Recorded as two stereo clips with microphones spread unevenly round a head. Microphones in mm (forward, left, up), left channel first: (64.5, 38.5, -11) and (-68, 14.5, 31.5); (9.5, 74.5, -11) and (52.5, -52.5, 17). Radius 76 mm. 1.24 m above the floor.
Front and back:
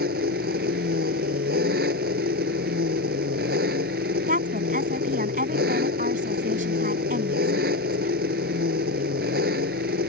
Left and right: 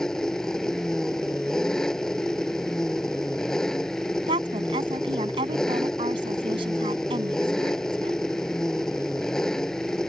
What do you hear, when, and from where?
0.0 s an engine running: 160° right
4.3 s a woman speaking: 130° right